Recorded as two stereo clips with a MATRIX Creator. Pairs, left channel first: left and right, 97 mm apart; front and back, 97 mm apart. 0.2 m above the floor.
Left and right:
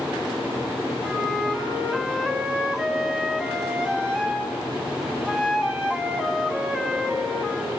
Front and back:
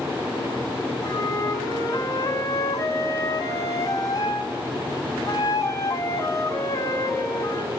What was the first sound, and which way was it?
A flute, 15° right.